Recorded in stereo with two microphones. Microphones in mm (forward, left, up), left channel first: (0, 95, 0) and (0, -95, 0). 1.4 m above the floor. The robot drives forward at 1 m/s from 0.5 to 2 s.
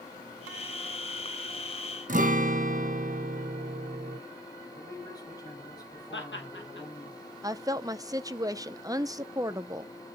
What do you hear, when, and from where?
2.1 s a guitar: 45° right (ahead or behind), 0.8 m
4.8 s a man speaking: 20° left (ahead or behind), 5.5 m
6.1 s laughter: 75° left (ahead or behind), 2 m
7.4 s a woman speaking: 20° right (ahead or behind), 0.5 m